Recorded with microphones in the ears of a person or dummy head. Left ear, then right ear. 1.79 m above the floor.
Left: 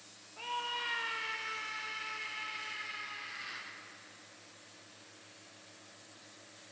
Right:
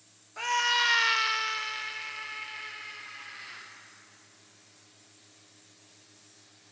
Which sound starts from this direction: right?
A scream, at 0.4 s.